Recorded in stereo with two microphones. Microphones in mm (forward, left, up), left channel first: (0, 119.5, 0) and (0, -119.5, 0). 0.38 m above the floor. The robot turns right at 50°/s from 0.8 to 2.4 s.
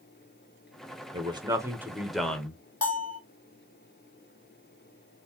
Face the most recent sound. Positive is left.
turn(degrees=85)